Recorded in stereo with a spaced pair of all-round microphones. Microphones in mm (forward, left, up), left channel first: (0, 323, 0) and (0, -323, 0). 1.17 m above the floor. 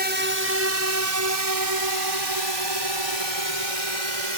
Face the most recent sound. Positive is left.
turn(degrees=-50)  # may be behind; listen again after turning